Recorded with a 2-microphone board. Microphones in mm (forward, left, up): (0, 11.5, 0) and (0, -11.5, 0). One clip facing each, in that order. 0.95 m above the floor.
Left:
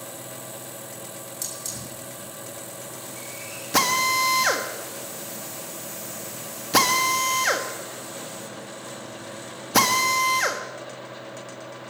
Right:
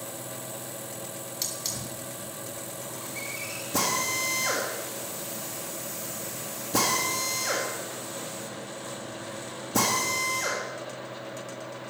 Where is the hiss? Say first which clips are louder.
Right 2 dB; 35° right (ahead or behind), 4.5 m.